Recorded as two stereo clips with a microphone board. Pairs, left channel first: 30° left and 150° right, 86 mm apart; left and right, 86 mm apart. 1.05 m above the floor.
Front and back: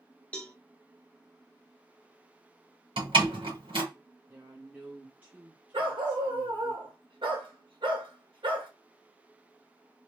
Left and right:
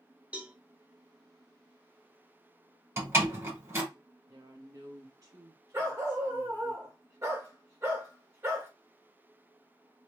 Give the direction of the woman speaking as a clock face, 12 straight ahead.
3 o'clock.